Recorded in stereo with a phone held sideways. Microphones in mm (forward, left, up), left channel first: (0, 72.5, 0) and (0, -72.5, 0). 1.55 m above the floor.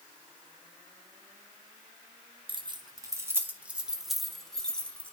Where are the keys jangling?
40° right (ahead or behind), 0.8 m; by 5.1 s 10° left (ahead or behind), 1.7 m.